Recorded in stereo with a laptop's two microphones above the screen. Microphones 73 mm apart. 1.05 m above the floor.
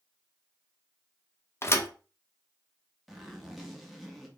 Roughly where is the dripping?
I don't hear dripping.